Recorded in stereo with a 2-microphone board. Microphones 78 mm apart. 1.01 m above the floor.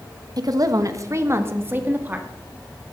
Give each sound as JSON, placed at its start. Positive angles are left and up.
{"t": 0.4, "sound": "a woman speaking", "side_deg": -55, "distance_m": 1.3}